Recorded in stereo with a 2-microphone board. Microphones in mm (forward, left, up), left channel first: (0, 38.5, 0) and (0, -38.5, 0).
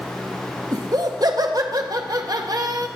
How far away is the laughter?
About 0.8 m.